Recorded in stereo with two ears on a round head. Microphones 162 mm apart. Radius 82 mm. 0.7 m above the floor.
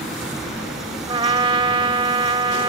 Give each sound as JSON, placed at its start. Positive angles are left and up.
{"t": 1.1, "sound": "a trumpet", "side_deg": -25}